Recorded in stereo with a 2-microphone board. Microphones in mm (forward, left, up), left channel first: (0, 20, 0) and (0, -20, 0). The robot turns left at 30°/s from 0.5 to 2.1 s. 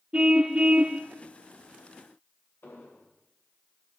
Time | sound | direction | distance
0.1 | a car horn | 30° right (ahead or behind) | 2 m
2.6 | an explosion | 65° left (ahead or behind) | 5 m